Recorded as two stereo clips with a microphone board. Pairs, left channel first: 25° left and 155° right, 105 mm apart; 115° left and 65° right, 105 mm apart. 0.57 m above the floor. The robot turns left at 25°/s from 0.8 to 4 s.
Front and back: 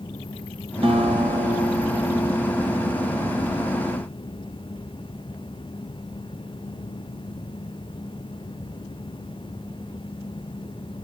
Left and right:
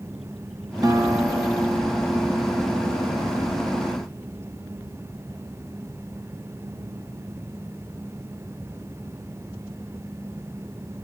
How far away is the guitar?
About 1.5 m.